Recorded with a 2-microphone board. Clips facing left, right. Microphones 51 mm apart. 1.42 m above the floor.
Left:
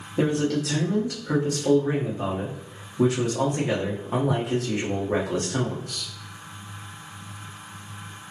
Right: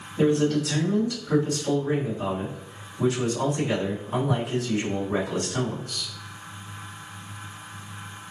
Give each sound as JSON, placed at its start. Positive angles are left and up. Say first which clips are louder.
{"t": 0.2, "sound": "a man speaking", "louder": "right 2 dB", "side_deg": 85, "distance_m": 1.2}